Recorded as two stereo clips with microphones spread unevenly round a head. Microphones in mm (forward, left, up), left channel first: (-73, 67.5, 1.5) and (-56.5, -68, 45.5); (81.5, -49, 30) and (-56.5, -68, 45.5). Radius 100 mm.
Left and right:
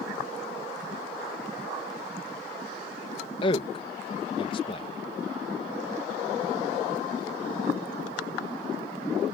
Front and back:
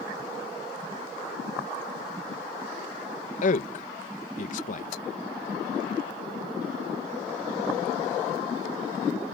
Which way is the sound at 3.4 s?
40° left.